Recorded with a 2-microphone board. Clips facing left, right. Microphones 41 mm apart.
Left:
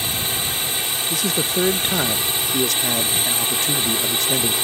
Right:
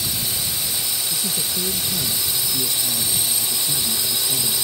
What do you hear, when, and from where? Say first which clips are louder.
0.0 s a drone: left 3 dB; 40° left (ahead or behind)
1.1 s a man speaking: left 5 dB; 70° left (ahead or behind)